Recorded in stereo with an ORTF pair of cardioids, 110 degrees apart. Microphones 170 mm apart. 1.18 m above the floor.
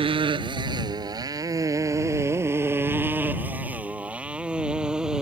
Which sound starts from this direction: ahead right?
A motorcycle, at 0.0 s.